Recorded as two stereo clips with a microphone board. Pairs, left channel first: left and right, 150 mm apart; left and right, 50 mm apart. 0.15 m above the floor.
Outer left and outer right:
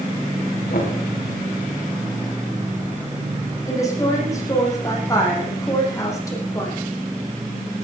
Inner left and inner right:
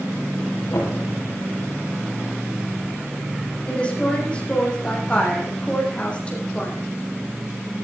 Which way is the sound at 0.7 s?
70° left (ahead or behind).